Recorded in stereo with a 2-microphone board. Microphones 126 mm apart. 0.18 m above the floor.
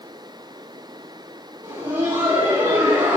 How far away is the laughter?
About 5 m.